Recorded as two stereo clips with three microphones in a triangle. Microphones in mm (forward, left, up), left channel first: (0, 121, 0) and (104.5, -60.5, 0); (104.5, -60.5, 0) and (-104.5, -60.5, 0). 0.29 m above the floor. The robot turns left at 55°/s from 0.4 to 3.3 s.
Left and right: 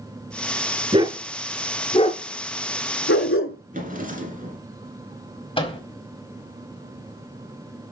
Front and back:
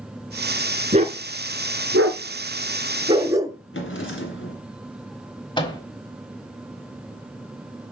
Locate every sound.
0.9 s a dog barking: 120° right, 0.8 m; by 3.6 s 105° left, 0.8 m
3.7 s a drawer: 10° right, 1.8 m
5.6 s a microwave: 60° left, 1.4 m